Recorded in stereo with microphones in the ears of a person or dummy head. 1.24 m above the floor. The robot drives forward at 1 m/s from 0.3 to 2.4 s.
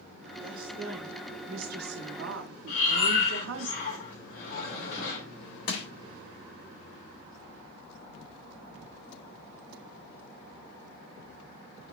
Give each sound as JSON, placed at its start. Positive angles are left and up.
{"t": 0.4, "sound": "a woman speaking", "side_deg": -30, "distance_m": 2.5}
{"t": 2.7, "sound": "breathing", "side_deg": 60, "distance_m": 3.0}
{"t": 5.7, "sound": "crushing", "side_deg": 60, "distance_m": 2.0}